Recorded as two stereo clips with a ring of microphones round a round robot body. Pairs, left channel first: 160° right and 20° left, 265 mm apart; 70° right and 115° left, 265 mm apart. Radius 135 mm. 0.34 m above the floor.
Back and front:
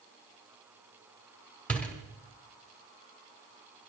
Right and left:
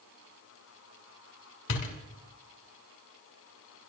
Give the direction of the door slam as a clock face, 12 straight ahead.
2 o'clock.